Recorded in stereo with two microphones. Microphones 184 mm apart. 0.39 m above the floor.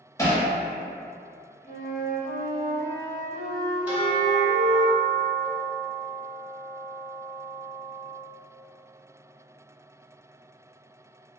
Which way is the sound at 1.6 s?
40° left (ahead or behind).